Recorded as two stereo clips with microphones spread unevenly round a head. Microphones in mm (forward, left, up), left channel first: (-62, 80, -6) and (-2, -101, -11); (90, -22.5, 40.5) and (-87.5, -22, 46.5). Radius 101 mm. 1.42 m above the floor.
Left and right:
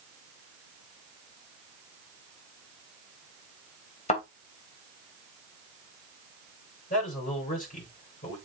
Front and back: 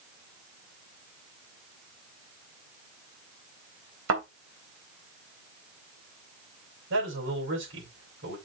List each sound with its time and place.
4.1 s a thud: 160° left, 3.5 m
6.9 s a man speaking: 155° left, 5.5 m